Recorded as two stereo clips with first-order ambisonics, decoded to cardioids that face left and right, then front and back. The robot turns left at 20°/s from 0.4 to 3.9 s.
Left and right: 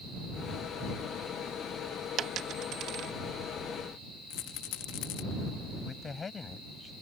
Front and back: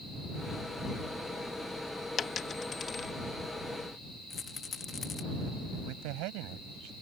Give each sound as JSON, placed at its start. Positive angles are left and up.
{"t": 2.2, "sound": "a dropped coin", "azimuth_deg": -50}
{"t": 4.3, "sound": "a rattle", "azimuth_deg": 70}
{"t": 5.8, "sound": "a man speaking", "azimuth_deg": 165}